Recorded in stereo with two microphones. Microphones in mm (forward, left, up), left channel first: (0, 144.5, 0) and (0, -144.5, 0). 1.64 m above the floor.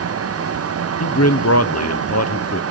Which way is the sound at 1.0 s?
65° left (ahead or behind).